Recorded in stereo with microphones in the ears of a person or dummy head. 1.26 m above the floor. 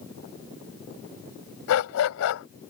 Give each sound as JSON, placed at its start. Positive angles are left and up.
{"t": 1.7, "sound": "a dog barking", "side_deg": 75}